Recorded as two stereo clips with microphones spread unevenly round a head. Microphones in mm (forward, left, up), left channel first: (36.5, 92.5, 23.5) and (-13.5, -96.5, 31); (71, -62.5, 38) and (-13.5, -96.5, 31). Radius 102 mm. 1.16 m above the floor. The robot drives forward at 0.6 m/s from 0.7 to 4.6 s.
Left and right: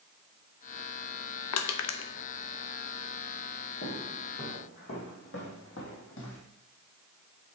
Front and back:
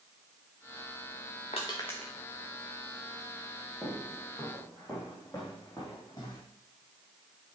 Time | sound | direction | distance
1.5 | crushing | 80° left | 0.6 m
3.8 | footsteps | 115° left | 3 m